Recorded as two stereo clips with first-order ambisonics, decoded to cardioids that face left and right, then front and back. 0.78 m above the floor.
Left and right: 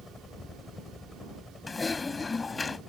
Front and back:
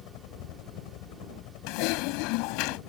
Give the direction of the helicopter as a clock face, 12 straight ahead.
11 o'clock.